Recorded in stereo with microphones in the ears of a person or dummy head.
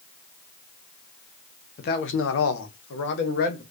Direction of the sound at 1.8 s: 45° left (ahead or behind).